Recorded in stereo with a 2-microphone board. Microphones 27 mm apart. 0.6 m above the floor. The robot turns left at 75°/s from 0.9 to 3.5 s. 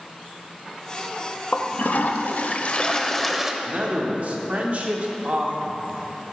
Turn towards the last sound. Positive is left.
turn(degrees=-55)  # may be behind; listen again after turning